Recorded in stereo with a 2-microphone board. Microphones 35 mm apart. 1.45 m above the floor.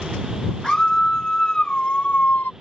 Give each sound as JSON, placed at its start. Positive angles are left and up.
{"t": 0.6, "sound": "a scream", "side_deg": 20}